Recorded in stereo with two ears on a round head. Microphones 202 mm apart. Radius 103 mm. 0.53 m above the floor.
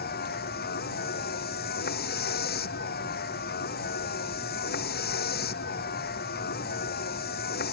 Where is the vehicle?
45° left (ahead or behind).